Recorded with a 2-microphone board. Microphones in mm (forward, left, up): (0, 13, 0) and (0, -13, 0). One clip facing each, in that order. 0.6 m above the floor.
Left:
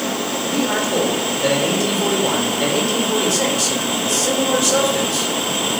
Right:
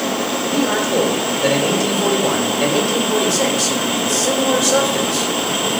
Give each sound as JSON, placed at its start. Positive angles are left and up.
{"t": 0.4, "sound": "a man speaking", "side_deg": 5, "distance_m": 2.5}